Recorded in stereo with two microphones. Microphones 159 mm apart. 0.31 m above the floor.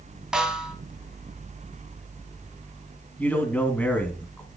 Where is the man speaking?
10° left (ahead or behind), 2.5 m.